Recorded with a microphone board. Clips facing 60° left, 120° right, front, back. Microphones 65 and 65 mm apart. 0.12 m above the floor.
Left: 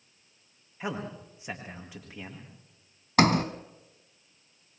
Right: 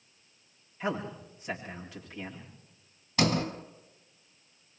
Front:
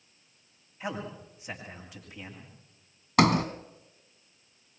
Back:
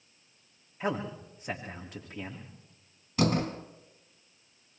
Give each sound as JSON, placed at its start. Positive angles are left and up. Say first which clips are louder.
{"t": 0.8, "sound": "a man speaking", "louder": "right 2 dB, back 4 dB", "azimuth_deg": 135, "distance_m": 7.5}
{"t": 3.2, "sound": "a sliding door", "louder": "left 5 dB, front 5 dB", "azimuth_deg": 30, "distance_m": 3.0}